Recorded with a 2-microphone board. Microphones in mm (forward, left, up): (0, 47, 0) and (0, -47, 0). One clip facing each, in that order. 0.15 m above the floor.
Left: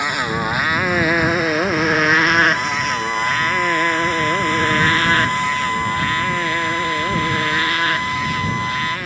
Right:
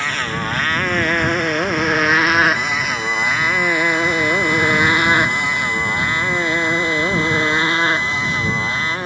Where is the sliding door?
I don't hear a sliding door.